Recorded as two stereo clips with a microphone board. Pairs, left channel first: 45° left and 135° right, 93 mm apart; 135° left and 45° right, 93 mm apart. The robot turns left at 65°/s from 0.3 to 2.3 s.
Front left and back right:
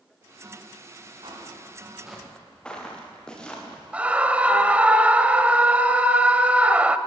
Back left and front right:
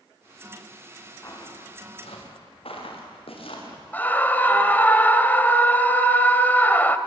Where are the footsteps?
165° right, 6.5 m; by 3.8 s 125° left, 8 m.